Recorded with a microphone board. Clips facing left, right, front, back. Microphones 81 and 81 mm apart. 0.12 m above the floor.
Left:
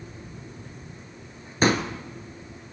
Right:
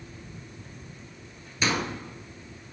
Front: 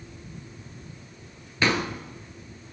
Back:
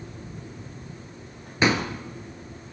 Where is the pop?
115° left, 1.8 m.